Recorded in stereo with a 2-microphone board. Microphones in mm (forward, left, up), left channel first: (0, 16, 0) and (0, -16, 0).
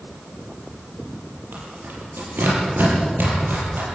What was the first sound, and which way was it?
Tearing paper, 80° right.